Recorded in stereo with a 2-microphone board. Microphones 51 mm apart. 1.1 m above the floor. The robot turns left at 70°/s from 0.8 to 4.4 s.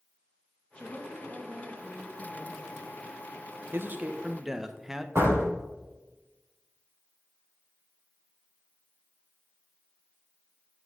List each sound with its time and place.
0.8 s a woman speaking: 155° left, 1.7 m; by 2.9 s 10° left, 1.7 m
3.7 s a man speaking: 125° right, 0.8 m; by 5.0 s 170° right, 0.8 m
5.2 s a door slam: 60° right (ahead or behind), 4.5 m